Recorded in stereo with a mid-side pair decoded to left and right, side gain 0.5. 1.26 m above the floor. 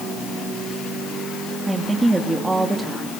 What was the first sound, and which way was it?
A woman speaking, 15° right.